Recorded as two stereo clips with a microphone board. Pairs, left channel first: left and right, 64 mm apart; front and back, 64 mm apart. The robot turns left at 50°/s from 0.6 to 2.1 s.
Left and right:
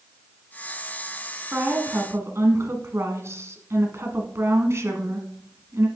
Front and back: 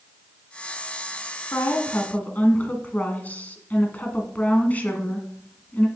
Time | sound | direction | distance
1.5 | a woman speaking | 30° right | 1.8 m